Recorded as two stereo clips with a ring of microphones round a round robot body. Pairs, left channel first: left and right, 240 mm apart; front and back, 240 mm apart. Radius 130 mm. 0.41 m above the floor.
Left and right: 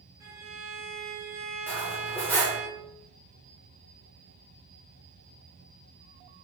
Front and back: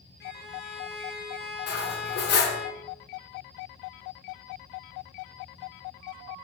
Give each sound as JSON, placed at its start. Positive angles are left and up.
{"t": 0.2, "sound": "a violin", "azimuth_deg": -15, "distance_m": 0.8}
{"t": 1.7, "sound": "cutlery clinking", "azimuth_deg": 15, "distance_m": 0.5}